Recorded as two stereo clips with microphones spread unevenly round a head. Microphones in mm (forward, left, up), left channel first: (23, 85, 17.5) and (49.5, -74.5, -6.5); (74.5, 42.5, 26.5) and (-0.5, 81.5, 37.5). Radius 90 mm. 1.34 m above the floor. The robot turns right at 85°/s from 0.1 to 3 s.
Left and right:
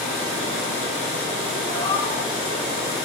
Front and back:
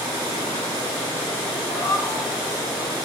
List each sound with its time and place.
1.7 s a cat meowing: 15° left, 4.5 m; by 2.3 s 65° left, 4.5 m